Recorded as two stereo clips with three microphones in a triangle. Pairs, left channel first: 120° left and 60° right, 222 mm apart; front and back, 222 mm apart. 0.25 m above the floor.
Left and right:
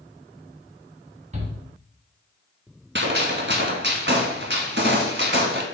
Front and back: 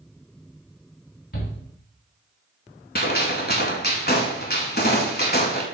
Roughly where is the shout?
Ahead.